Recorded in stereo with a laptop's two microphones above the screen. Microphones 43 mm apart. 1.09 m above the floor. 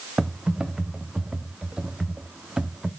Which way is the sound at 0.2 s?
10° right (ahead or behind).